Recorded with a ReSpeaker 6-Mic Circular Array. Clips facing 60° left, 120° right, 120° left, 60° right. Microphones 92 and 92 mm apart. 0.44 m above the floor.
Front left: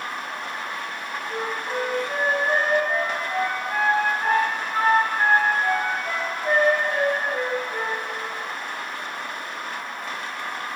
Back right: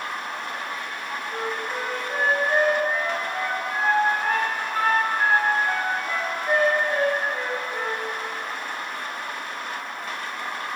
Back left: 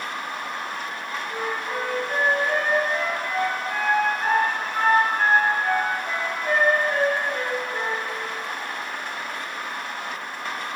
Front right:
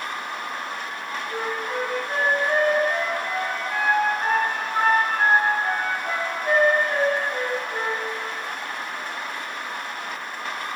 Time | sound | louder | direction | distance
1.3 | a flute | front left 2 dB, front right 1 dB | 15° left | 3.5 m